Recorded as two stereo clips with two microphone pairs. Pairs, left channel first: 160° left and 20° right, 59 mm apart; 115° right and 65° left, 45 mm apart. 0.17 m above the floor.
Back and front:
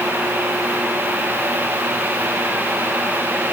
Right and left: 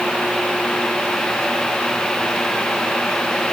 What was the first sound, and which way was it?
Only background noise.